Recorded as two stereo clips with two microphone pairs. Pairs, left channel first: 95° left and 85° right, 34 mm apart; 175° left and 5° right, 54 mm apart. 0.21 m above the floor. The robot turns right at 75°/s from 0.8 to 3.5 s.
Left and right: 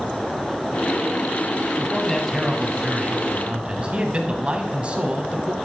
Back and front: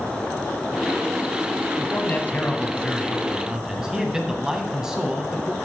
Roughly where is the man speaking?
Behind left.